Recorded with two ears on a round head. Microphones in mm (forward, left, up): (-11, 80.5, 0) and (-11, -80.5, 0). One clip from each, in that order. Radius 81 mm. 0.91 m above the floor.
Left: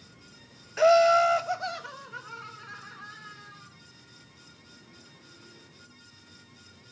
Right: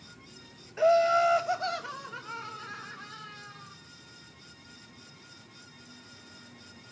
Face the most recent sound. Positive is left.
turn(degrees=-20)  # may be behind; listen again after turning